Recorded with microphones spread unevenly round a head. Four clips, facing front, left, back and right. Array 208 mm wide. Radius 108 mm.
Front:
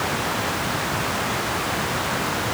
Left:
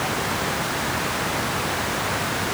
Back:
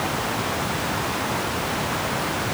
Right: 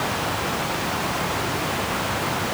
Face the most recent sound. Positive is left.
No sound to turn to.